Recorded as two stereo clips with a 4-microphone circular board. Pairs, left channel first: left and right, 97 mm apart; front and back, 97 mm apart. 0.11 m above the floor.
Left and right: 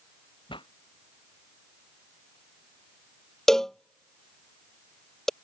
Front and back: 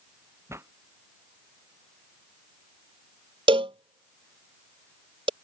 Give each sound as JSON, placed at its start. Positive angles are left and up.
{"t": 0.5, "sound": "a pop", "azimuth_deg": 120}
{"t": 3.5, "sound": "a cowbell", "azimuth_deg": 175}